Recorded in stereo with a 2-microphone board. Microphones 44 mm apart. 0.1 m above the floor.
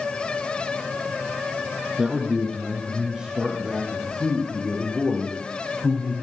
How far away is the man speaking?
About 3 m.